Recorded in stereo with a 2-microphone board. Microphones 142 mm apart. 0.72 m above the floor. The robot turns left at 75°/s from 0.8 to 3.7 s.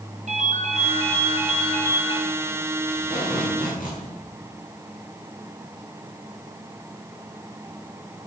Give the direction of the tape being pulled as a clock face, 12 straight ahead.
7 o'clock.